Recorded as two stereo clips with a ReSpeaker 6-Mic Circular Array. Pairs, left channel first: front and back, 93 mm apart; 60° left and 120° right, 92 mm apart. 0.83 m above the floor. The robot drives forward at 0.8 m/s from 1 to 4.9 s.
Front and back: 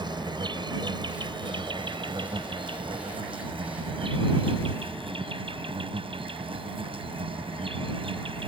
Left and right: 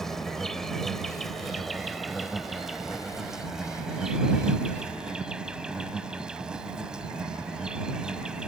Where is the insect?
145° left; by 8.5 s 160° left.